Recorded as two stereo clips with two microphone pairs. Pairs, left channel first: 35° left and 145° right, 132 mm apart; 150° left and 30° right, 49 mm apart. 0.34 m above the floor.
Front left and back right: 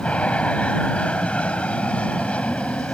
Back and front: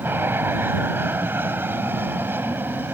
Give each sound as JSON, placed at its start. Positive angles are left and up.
{"t": 0.0, "sound": "an aircraft", "azimuth_deg": -45}